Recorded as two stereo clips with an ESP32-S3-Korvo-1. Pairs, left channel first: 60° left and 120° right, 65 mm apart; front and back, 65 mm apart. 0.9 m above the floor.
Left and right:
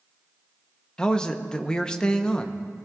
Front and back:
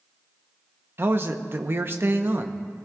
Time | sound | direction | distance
1.0 | a man speaking | 135° left | 0.8 m